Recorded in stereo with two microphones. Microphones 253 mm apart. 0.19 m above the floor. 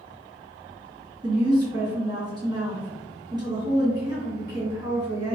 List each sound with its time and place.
1.2 s a woman speaking: 15° right (ahead or behind), 1.9 m